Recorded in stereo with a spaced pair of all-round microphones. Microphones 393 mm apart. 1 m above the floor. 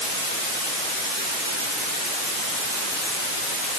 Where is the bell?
No bell in this recording.